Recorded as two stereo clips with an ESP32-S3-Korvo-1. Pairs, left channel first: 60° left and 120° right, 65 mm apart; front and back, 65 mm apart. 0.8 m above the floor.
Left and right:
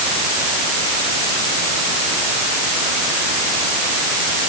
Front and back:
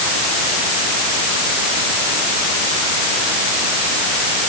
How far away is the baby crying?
I don't hear a baby crying.